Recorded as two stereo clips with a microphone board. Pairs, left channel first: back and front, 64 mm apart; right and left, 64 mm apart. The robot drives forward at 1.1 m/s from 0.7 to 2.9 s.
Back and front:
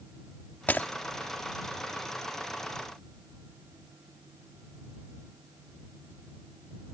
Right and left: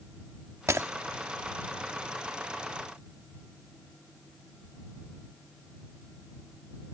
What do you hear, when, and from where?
0.7 s breaking glass: 120° left; by 0.9 s 130° left